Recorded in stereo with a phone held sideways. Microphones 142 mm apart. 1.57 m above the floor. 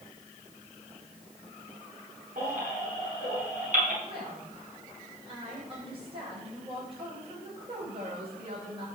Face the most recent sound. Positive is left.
turn(degrees=-40)  # may be behind; listen again after turning